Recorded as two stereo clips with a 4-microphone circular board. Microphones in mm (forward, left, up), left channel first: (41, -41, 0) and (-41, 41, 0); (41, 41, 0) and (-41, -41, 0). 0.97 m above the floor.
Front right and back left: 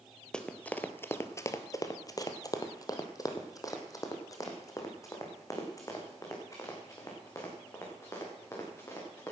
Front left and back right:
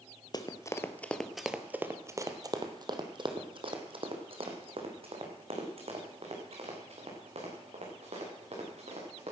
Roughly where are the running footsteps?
Ahead left.